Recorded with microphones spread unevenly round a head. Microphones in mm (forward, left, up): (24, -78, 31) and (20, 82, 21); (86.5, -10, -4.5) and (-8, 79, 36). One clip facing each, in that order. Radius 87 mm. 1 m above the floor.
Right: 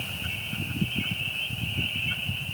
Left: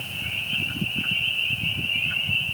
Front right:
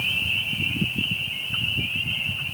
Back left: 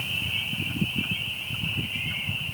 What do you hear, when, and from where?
Only background noise.